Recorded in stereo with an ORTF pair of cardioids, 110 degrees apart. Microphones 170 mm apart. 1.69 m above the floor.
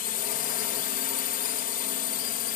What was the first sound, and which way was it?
A drone, 60° left.